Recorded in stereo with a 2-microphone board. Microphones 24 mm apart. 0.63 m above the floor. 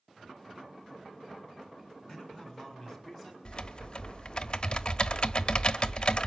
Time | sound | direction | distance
2.1 | a man speaking | 15° left (ahead or behind) | 6.5 m
3.5 | typing on a keyboard | 40° left (ahead or behind) | 1.1 m